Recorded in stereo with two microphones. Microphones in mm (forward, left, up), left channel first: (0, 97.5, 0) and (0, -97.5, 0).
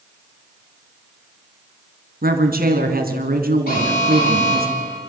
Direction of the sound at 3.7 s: 50° left (ahead or behind).